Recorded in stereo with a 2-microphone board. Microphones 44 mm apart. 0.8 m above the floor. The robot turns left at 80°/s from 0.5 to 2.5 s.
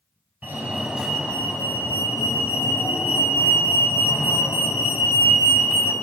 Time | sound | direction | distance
0.4 | a fire alarm | 140° right | 5.5 m